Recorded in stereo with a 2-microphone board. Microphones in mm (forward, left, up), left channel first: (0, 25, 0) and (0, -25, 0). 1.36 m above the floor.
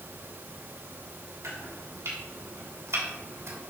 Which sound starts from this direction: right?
Chopping, at 1.4 s.